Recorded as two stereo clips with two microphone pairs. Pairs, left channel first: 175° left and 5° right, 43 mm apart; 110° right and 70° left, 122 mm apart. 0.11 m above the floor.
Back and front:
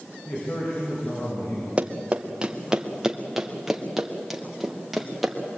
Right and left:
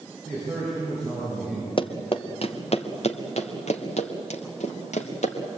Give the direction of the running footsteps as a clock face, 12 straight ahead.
2 o'clock.